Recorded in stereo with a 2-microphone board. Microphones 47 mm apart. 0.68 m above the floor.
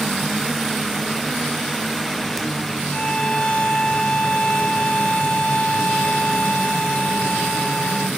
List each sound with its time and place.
2.9 s a violin: 25° left (ahead or behind), 0.8 m